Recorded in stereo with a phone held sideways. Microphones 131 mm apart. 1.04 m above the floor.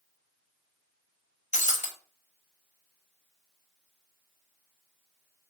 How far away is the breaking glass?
About 0.7 m.